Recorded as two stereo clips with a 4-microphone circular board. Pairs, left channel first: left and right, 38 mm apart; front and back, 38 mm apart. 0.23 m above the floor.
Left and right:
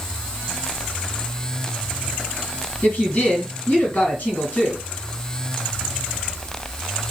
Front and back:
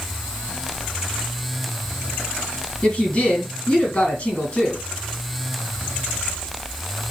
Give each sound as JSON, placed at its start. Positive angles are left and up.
{"t": 2.8, "sound": "a woman speaking", "azimuth_deg": 45, "distance_m": 2.5}